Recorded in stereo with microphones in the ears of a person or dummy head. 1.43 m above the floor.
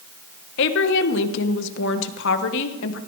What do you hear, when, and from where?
0.6 s a woman speaking: 70° left (ahead or behind), 1.3 m